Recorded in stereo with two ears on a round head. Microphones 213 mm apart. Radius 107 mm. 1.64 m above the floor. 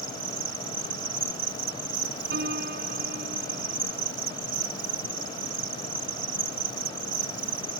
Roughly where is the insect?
Right.